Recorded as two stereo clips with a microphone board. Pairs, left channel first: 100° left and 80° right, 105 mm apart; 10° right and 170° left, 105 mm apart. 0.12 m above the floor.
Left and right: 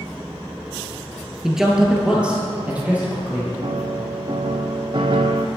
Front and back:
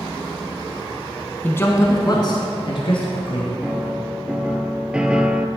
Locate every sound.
1.4 s a man speaking: straight ahead, 1.0 m; by 3.5 s 5° right, 2 m
3.6 s a piano: 110° right, 0.7 m